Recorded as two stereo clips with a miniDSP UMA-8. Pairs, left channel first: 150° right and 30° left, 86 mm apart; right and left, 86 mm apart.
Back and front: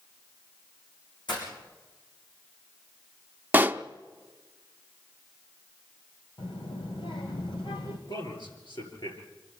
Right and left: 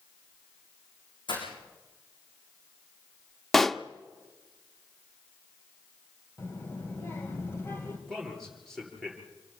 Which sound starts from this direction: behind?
A man speaking, at 8.1 s.